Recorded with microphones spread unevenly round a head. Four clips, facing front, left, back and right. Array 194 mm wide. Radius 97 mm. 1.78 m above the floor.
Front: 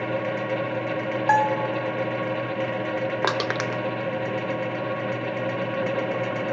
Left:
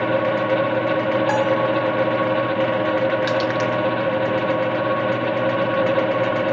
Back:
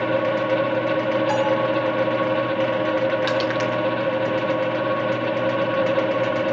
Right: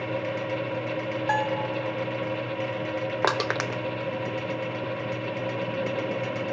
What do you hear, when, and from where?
0.0 s a fan: 105° left, 1.2 m
1.3 s a bell: 30° left, 3 m
3.2 s crushing: 50° right, 1.0 m